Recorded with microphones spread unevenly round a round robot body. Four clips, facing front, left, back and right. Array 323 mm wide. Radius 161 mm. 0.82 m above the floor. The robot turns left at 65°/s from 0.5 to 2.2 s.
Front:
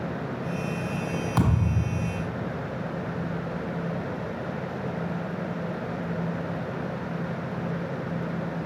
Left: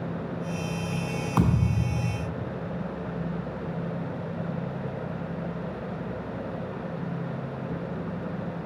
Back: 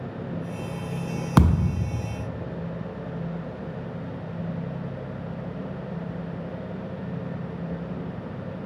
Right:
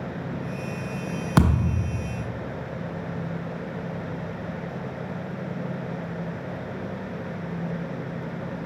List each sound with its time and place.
1.4 s a thud: 140° right, 0.5 m; by 1.9 s straight behind, 0.5 m